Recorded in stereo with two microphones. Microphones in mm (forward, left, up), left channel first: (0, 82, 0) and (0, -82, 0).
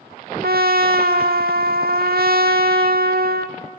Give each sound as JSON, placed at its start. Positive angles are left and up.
{"t": 0.4, "sound": "a trumpet", "side_deg": -75, "distance_m": 0.9}